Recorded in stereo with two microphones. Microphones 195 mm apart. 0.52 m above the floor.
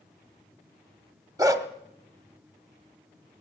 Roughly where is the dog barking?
Centre.